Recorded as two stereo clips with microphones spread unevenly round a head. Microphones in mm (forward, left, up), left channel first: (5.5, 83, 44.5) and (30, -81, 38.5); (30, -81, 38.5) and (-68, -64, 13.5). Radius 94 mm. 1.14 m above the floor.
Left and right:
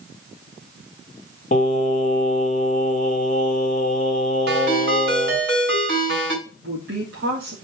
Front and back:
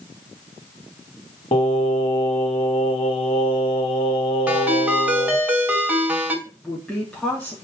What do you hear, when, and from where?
1.5 s singing: 50° left, 1.7 m
4.5 s a ringtone: 115° right, 5 m
6.5 s a woman speaking: 95° right, 3 m